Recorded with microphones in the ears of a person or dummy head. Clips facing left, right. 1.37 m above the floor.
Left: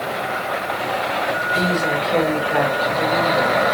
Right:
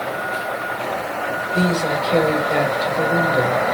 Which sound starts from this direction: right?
A woman speaking, at 1.5 s.